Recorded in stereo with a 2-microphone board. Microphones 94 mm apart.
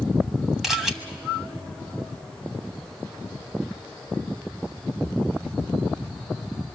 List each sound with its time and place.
0.6 s a camera shutter: 5° right (ahead or behind), 1.3 m